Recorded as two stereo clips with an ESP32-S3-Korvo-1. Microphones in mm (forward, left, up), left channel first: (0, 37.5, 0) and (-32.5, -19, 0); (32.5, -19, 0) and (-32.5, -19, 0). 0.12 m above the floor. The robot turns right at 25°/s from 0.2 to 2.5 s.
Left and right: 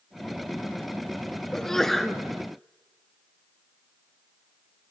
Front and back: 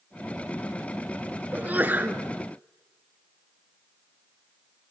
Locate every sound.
1.5 s a sneeze: 135° left, 1.4 m; by 2.2 s 150° left, 1.4 m